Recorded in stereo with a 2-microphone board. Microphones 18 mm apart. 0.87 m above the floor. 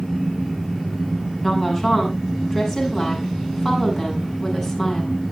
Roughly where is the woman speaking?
Centre.